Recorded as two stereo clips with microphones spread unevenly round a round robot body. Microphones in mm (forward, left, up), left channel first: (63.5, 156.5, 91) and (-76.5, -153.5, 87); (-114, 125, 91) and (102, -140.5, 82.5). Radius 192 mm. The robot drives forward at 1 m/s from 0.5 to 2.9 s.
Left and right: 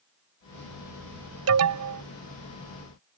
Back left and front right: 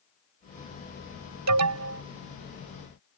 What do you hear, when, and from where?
1.5 s an alarm: 75° right; by 2.0 s 95° right